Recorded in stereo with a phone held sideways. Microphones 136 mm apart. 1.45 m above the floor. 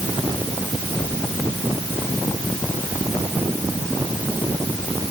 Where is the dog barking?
No dog barking in this recording.